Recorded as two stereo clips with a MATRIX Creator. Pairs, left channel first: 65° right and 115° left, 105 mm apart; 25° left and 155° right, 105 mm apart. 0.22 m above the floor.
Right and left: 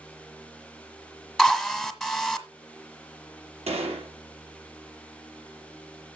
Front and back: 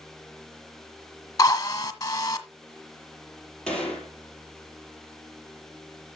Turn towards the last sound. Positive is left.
turn(degrees=105)